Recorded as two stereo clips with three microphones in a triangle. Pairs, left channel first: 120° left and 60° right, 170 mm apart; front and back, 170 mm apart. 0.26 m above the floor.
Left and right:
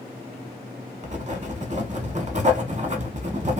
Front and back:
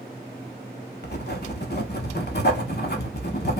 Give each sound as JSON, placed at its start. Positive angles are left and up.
{"t": 1.0, "sound": "writing", "azimuth_deg": -15, "distance_m": 0.7}